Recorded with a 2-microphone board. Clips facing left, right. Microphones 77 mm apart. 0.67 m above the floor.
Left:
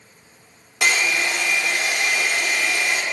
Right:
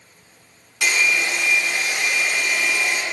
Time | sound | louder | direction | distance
0.8 | a hair dryer | even | 70° left (ahead or behind) | 0.8 m